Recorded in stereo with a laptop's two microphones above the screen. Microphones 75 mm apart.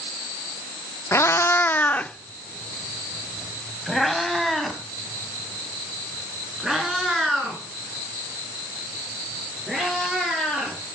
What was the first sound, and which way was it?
A cat meowing, 35° left (ahead or behind).